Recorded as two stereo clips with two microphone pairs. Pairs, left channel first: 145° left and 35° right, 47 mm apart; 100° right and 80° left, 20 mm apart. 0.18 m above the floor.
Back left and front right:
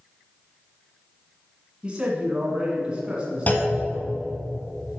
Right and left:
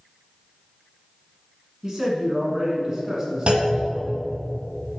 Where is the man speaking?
25° left, 1.7 m.